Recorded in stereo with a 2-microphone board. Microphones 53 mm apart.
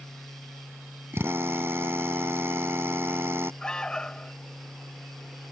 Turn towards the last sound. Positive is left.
turn(degrees=15)  # may be behind; listen again after turning